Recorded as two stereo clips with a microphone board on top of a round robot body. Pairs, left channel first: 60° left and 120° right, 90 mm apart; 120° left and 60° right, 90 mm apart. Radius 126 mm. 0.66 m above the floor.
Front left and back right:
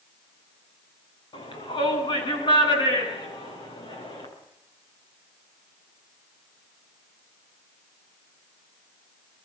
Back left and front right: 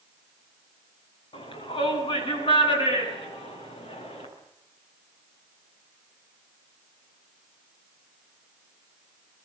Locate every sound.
1.3 s a shout: 90° left, 10 m; by 4.3 s 100° left, 11.5 m